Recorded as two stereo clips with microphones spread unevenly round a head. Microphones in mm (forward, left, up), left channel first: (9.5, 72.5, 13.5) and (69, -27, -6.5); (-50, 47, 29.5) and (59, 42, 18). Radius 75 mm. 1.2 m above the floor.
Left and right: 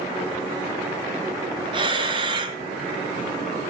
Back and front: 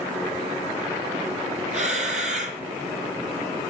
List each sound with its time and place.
1.7 s breathing: 10° right, 1.7 m